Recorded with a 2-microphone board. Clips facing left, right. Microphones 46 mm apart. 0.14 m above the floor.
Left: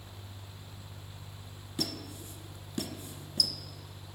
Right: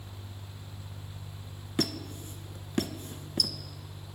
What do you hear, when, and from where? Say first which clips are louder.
1.8 s a squeak: right 6 dB; 50° right (ahead or behind), 0.6 m